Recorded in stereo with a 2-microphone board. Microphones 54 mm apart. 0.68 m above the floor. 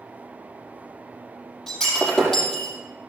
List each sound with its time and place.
1.7 s breaking glass: 5° left (ahead or behind), 5 m